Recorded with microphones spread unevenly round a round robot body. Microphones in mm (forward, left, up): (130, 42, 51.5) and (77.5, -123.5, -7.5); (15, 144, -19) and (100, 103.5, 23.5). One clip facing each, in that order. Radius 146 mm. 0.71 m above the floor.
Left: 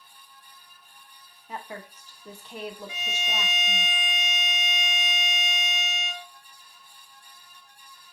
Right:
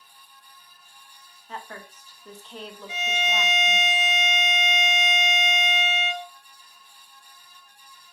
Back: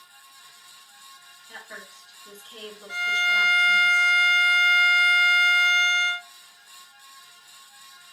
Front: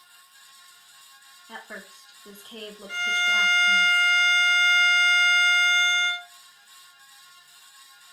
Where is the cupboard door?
No cupboard door in this recording.